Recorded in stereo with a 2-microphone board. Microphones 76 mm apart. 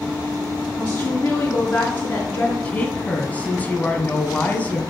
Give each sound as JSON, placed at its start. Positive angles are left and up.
{"t": 0.8, "sound": "a woman speaking", "side_deg": 15, "distance_m": 3.5}
{"t": 2.6, "sound": "a woman speaking", "side_deg": 20, "distance_m": 1.6}